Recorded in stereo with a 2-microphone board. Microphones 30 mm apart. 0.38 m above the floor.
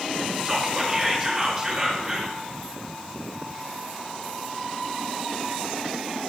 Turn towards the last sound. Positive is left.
turn(degrees=-25)  # may be behind; listen again after turning